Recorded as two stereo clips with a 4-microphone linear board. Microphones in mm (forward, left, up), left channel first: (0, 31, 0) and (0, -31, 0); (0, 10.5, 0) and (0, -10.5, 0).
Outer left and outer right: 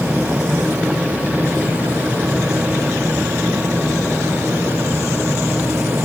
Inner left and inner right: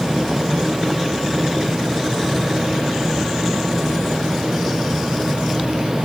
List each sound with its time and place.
Only background noise.